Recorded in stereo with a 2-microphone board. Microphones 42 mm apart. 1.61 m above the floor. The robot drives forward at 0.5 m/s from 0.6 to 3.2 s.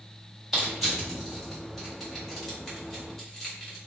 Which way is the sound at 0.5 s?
5° left (ahead or behind).